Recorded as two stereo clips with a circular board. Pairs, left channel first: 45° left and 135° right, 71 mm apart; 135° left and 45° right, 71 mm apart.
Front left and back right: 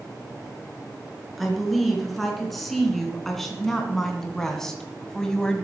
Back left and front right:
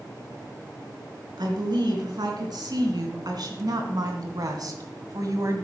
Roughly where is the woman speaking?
Ahead right.